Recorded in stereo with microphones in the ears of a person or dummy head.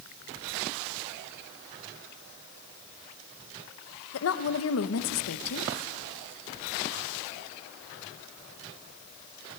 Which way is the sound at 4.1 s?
70° left (ahead or behind).